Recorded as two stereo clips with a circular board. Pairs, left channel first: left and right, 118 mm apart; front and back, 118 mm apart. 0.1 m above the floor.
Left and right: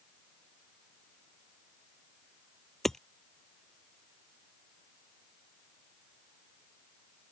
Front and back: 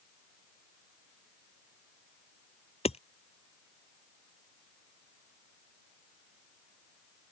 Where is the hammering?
5° left.